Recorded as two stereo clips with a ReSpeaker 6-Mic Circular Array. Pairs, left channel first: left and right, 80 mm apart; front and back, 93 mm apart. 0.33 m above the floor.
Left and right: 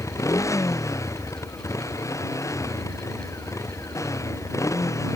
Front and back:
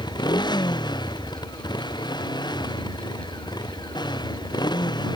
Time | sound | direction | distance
0.0 | a motorcycle | 40° left | ?